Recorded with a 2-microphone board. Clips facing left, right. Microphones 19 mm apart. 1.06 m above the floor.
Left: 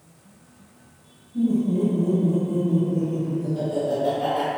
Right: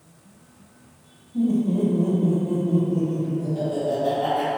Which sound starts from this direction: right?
Laughter, at 1.3 s.